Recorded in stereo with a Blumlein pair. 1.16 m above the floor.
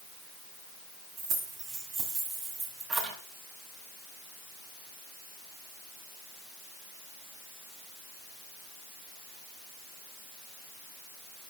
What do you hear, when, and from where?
1.2 s keys jangling: 30° right, 6.5 m; by 3.2 s 15° right, 6.5 m